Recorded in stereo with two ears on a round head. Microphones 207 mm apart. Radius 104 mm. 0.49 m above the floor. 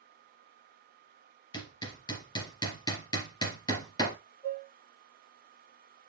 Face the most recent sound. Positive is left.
turn(degrees=15)  # may be behind; listen again after turning